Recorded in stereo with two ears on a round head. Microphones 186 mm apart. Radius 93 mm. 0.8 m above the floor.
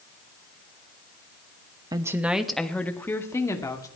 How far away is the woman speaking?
About 0.9 m.